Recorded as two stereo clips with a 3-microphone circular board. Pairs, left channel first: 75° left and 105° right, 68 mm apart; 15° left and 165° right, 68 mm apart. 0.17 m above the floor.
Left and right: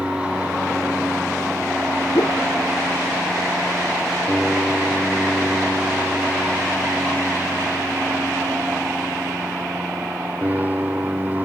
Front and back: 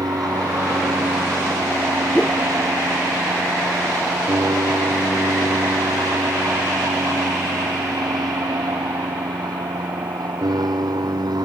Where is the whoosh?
100° left.